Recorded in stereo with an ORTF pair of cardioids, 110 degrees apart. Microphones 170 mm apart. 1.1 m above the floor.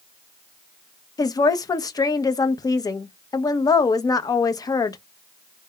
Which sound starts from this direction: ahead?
A woman speaking, at 1.2 s.